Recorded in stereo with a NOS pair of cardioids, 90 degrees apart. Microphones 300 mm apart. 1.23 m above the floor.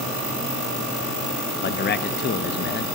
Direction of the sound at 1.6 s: 35° left.